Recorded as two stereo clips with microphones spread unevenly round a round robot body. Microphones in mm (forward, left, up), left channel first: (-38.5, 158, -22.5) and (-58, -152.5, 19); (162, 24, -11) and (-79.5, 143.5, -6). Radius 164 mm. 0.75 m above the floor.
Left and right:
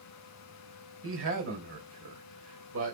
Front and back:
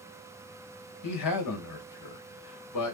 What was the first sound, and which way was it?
A man speaking, 40° right.